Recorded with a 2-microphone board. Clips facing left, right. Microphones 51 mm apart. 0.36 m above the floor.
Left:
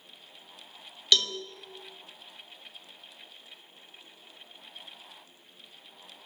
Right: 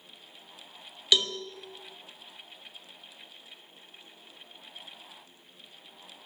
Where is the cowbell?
10° right (ahead or behind), 0.7 m.